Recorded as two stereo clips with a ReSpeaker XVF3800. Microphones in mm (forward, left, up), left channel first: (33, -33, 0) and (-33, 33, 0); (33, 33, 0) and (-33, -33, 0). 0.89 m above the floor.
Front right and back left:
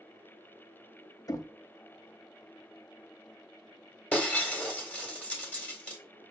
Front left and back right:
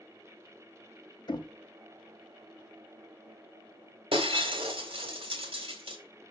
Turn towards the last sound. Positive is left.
turn(degrees=-120)